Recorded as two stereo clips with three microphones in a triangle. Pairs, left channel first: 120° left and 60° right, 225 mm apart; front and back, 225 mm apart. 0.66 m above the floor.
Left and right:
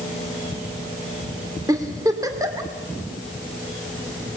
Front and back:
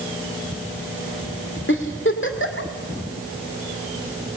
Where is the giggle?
15° left, 2.5 m.